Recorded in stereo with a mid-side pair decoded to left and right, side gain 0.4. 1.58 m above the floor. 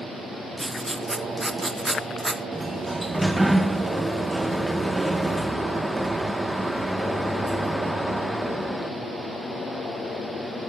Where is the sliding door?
10° right, 1.8 m.